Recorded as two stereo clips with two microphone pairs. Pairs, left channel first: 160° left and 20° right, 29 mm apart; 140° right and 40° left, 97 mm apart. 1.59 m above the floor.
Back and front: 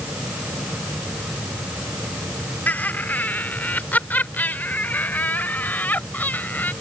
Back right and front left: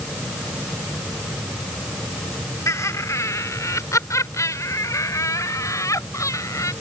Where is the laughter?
165° left.